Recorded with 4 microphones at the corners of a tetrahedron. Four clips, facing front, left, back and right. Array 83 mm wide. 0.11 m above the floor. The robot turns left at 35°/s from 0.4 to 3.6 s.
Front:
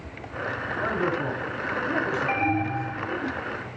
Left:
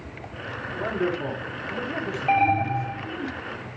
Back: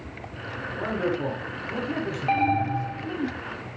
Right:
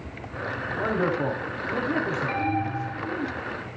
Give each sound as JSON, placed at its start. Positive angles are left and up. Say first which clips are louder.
{"t": 0.7, "sound": "a man speaking", "louder": "right 1 dB, even", "azimuth_deg": -80, "distance_m": 7.5}
{"t": 2.3, "sound": "an alarm", "louder": "left 6 dB, back 2 dB", "azimuth_deg": 120, "distance_m": 3.0}